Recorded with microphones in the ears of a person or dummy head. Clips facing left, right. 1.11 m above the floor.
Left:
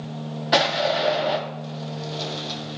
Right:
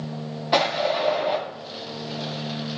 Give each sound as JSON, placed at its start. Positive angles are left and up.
{"t": 0.5, "sound": "an explosion", "side_deg": 5, "distance_m": 1.5}